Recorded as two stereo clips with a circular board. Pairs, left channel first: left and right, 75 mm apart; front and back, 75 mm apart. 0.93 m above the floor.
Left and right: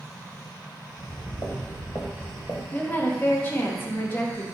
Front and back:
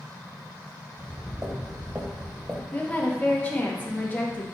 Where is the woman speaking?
50° left, 0.7 m.